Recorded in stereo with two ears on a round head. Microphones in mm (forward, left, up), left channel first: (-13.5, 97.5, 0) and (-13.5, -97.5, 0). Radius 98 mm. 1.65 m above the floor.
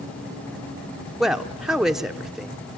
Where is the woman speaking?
Centre (ahead or behind), 0.8 m.